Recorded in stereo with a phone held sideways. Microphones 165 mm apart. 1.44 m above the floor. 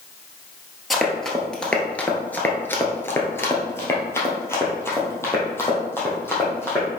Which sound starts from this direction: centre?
Running footsteps, at 0.9 s.